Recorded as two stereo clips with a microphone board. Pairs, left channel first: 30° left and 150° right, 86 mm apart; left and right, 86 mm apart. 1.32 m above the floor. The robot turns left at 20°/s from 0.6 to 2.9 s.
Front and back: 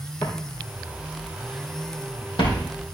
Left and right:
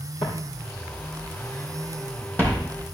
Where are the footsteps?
85° left, 3.5 m; by 2.7 s 15° left, 3.5 m.